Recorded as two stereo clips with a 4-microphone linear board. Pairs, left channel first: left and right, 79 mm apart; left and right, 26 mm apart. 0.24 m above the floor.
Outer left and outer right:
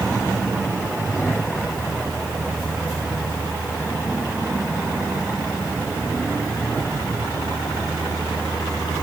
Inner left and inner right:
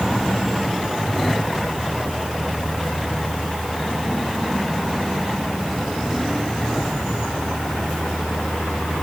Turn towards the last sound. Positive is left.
No sound to turn to.